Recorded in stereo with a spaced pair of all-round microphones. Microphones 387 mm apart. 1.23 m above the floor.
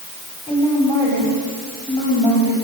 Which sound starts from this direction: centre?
A woman speaking, at 0.5 s.